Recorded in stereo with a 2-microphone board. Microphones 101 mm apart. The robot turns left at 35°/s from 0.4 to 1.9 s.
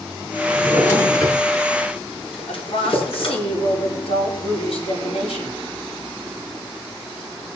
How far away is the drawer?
About 7 m.